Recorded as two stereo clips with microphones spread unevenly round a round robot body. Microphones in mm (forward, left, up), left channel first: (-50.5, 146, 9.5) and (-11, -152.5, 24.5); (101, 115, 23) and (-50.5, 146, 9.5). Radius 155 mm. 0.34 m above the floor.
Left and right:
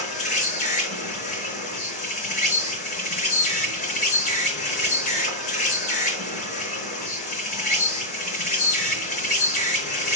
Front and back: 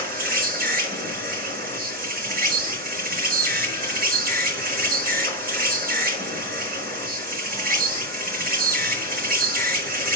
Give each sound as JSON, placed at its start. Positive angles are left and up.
{"t": 0.0, "sound": "an insect", "azimuth_deg": 165, "distance_m": 4.5}